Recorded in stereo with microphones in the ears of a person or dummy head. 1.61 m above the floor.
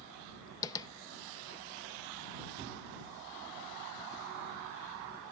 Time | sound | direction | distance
0.6 | tapping | 20° left (ahead or behind) | ?